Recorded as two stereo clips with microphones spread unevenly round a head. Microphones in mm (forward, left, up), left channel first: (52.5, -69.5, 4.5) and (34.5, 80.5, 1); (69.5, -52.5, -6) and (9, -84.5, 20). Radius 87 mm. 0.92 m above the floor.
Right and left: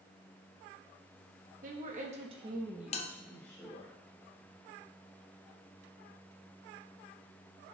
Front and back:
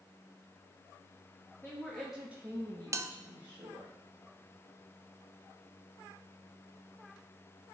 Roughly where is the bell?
Right.